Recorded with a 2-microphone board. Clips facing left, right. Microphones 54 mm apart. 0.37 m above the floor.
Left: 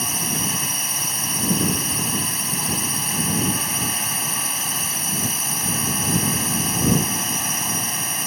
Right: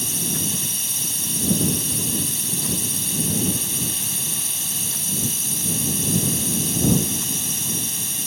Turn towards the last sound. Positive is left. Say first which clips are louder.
# left 3 dB
turn(degrees=45)  # may be behind; listen again after turning